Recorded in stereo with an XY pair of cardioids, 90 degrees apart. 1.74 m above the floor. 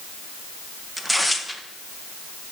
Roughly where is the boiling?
I don't hear boiling.